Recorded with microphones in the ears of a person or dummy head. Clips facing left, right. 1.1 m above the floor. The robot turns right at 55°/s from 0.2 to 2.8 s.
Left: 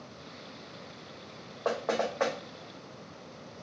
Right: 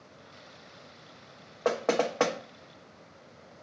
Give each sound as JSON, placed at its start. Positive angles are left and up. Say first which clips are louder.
{"t": 1.6, "sound": "knocking", "louder": "right 3 dB", "side_deg": -25, "distance_m": 0.5}